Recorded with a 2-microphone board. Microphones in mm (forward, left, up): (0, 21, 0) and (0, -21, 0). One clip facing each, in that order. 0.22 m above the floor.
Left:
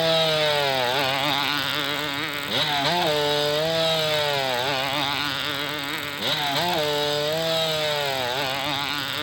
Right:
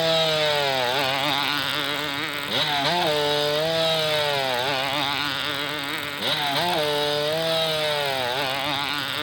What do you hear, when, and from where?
0.0 s a motorcycle: centre (ahead or behind); by 9.2 s 5° right (ahead or behind)